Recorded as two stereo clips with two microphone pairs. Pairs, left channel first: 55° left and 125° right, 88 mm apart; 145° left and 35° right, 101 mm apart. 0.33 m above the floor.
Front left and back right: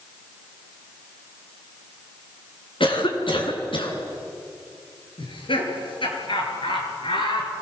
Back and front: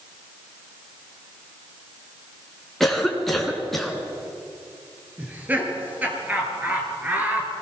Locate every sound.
2.8 s a cough: 60° left, 4 m
5.2 s laughter: 40° left, 5.5 m